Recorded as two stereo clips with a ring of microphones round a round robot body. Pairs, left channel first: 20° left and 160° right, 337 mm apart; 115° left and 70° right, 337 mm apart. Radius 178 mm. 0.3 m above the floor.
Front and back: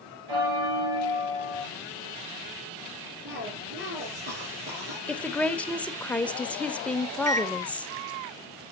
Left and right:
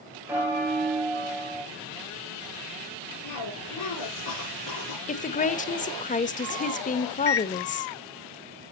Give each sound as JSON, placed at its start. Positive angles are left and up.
{"t": 0.3, "sound": "a bell", "azimuth_deg": -150, "distance_m": 6.5}
{"t": 3.2, "sound": "a cough", "azimuth_deg": 145, "distance_m": 6.0}
{"t": 5.1, "sound": "a woman speaking", "azimuth_deg": 100, "distance_m": 1.2}
{"t": 7.3, "sound": "a microwave", "azimuth_deg": 140, "distance_m": 0.9}